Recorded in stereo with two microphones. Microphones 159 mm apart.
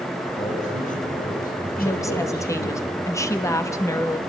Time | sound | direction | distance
0.4 | a man speaking | 45° left (ahead or behind) | 5.5 m
1.8 | a woman speaking | 20° left (ahead or behind) | 1.2 m